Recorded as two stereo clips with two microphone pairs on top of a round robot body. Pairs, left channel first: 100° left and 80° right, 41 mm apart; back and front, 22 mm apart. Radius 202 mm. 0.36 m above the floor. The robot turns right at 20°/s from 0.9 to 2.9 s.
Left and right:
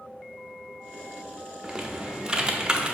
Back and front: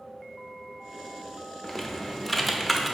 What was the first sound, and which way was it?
Typing on a keyboard, 120° right.